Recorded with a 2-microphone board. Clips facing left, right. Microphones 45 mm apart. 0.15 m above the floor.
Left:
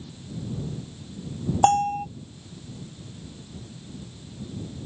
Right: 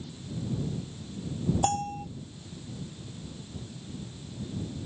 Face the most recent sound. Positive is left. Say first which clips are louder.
# left 14 dB
turn(degrees=50)  # may be behind; listen again after turning